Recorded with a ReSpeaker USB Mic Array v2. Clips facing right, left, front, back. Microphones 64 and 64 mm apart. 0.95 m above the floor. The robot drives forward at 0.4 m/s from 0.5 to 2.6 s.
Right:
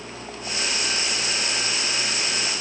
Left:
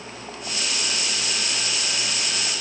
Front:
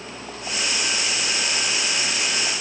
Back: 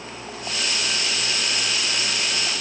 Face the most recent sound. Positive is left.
No sound to turn to.